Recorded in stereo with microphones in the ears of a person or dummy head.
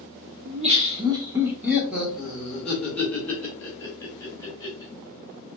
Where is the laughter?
40° right (ahead or behind), 1.0 m; by 4.9 s 20° left (ahead or behind), 3 m.